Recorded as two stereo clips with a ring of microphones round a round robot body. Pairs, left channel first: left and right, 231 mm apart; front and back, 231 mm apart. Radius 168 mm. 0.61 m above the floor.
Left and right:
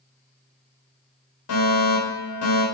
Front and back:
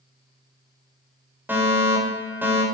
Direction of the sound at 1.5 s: 100° left.